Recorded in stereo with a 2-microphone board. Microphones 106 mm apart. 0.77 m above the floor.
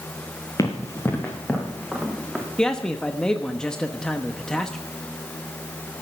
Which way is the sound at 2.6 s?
10° left (ahead or behind).